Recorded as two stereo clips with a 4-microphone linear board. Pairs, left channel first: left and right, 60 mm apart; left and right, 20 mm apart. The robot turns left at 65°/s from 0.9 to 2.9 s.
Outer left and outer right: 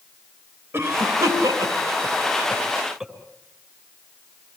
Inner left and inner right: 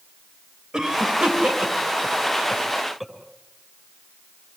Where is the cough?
45° right (ahead or behind), 6 m; by 3.1 s 5° right (ahead or behind), 6 m.